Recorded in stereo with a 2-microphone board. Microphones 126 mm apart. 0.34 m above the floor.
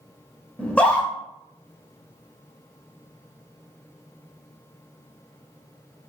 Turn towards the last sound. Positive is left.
turn(degrees=10)  # may be behind; listen again after turning